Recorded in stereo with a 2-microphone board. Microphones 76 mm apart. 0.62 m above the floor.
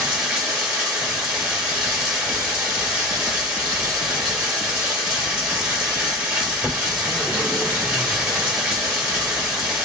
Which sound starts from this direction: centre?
Running water, at 0.0 s.